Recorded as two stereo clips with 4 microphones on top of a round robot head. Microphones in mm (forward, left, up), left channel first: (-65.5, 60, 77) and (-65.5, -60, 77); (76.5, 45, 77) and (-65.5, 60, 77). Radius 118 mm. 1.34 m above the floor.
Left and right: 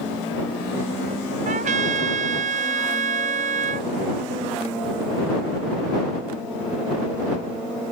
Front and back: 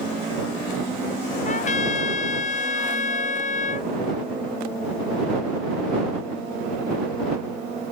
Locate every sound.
1.4 s a trumpet: 55° right